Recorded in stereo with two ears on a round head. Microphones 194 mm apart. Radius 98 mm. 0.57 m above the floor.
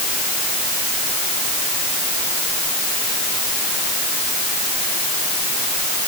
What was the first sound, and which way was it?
Only background noise.